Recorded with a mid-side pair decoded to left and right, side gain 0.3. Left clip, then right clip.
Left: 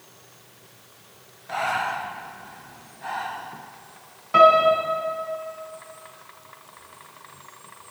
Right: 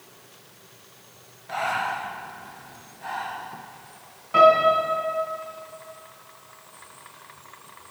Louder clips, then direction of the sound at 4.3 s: Left 1 dB; 45° left.